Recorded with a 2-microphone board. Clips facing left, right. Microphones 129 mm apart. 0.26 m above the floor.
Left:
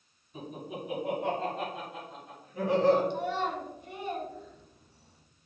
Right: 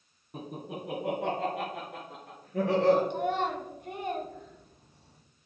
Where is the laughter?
65° right (ahead or behind), 2.5 m; by 3.0 s 75° right (ahead or behind), 4 m.